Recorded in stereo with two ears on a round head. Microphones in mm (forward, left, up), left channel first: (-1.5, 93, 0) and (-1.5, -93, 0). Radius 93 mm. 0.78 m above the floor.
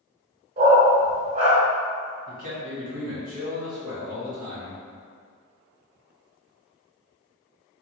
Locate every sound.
0.6 s a dog barking: 40° right (ahead or behind), 1.3 m
2.3 s a man speaking: 40° right (ahead or behind), 1.1 m